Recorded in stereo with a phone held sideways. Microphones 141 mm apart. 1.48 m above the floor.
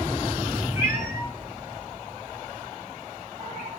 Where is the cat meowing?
15° right (ahead or behind), 2.5 m; by 3.7 s 55° right (ahead or behind), 3 m.